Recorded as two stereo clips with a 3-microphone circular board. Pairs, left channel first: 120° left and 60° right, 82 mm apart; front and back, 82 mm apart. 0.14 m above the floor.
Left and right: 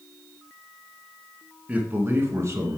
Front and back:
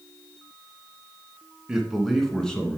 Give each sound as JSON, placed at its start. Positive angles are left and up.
{"t": 1.7, "sound": "a man speaking", "azimuth_deg": -105, "distance_m": 1.3}